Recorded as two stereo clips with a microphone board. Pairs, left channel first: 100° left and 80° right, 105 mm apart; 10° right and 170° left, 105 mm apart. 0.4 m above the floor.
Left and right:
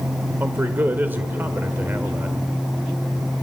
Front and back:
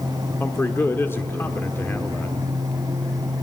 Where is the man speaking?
40° right, 1.2 m.